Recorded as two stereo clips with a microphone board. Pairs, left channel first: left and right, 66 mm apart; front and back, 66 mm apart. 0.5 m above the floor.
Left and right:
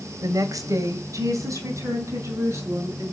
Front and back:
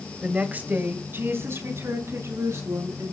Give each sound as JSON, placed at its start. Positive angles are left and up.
{"t": 0.2, "sound": "a woman speaking", "azimuth_deg": -105, "distance_m": 1.8}